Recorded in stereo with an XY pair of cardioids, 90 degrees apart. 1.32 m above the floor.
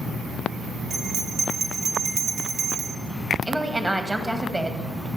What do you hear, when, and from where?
0.9 s a bell: 70° right, 1.1 m
3.5 s a woman speaking: 20° right, 1.8 m